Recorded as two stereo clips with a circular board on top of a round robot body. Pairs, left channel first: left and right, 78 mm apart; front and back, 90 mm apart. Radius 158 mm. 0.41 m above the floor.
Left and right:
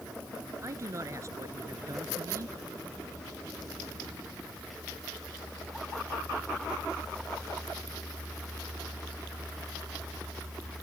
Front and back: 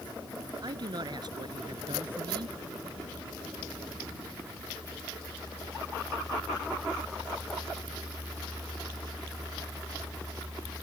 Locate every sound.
0.6 s a man speaking: 145° right